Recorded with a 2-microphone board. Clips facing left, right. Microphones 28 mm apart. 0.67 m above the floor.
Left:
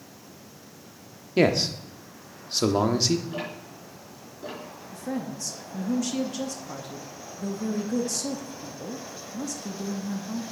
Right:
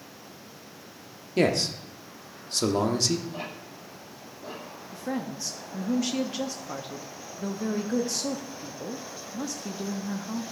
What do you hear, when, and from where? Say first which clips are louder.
1.4 s a man speaking: left 2 dB; 20° left (ahead or behind), 0.9 m
3.3 s ticking: left 3 dB; 65° left (ahead or behind), 4 m
4.9 s a woman speaking: even; 25° right (ahead or behind), 0.7 m